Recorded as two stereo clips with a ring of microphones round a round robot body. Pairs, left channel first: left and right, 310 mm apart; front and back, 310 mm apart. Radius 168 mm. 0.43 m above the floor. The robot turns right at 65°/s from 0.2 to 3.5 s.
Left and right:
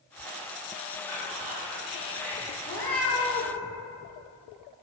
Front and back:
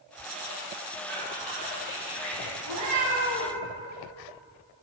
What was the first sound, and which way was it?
Whispering, 165° right.